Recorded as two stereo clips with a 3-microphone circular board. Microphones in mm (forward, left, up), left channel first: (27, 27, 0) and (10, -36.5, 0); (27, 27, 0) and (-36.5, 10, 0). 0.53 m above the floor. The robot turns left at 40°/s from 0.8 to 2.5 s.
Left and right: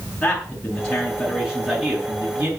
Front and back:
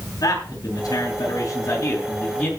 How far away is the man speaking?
About 6 m.